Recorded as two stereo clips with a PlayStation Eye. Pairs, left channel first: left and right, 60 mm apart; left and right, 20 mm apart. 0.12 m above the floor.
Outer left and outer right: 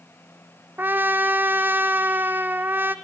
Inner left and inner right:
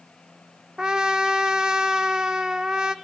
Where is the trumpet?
35° right (ahead or behind), 0.9 m.